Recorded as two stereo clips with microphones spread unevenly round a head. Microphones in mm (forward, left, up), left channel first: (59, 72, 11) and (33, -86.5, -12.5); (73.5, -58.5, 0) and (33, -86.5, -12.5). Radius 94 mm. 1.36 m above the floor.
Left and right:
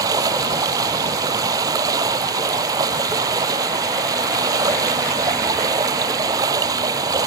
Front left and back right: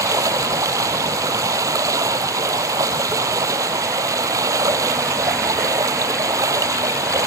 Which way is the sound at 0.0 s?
175° right.